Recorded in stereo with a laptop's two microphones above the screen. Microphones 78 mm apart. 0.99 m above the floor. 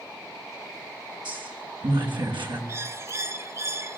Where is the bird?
35° right (ahead or behind), 0.5 m.